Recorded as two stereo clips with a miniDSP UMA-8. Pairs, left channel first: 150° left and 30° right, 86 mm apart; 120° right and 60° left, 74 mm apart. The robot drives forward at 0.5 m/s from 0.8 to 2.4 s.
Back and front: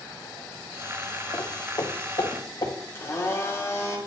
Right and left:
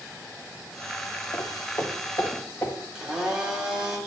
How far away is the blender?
About 1.6 m.